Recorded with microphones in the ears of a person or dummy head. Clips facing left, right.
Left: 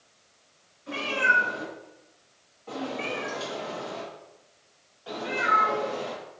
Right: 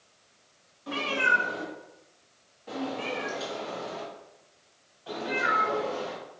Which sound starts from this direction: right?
A cat meowing, at 0.9 s.